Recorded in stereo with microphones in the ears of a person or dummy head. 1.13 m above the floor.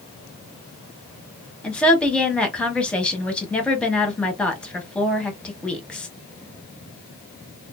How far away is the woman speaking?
About 1.0 m.